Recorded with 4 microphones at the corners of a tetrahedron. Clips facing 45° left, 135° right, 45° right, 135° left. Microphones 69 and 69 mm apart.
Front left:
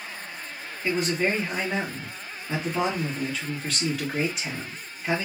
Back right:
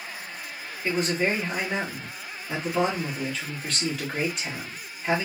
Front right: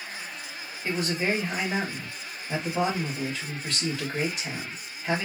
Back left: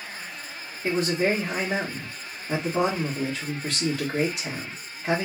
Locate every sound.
0.8 s a man speaking: 130° left, 1.9 m